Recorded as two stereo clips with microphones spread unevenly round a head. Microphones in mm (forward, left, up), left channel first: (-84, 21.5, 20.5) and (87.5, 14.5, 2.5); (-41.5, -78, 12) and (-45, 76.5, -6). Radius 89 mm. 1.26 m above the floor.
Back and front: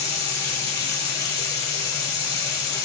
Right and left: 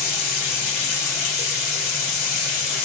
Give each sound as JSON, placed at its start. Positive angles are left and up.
{"t": 0.0, "sound": "running water", "azimuth_deg": -110, "distance_m": 2.5}